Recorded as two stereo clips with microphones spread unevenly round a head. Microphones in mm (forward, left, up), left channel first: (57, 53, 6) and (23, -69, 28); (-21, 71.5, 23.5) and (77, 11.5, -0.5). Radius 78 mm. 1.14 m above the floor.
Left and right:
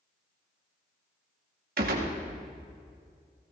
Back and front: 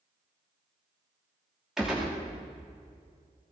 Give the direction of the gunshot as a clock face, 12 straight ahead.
4 o'clock.